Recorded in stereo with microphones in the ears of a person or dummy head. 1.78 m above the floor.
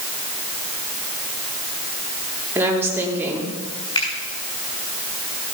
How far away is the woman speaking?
About 4 m.